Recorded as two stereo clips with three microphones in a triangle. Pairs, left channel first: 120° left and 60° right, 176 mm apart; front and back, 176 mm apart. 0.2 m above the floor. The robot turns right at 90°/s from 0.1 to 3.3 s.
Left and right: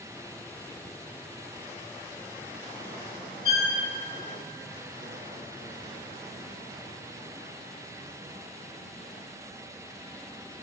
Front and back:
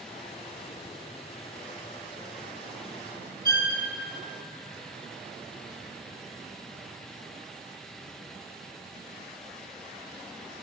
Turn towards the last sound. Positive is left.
turn(degrees=-30)